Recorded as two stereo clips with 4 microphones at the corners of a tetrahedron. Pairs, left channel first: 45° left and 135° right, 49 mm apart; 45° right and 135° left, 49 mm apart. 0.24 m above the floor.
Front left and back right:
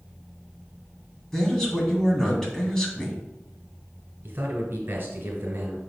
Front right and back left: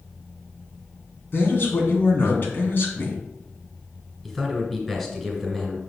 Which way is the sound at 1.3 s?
30° right.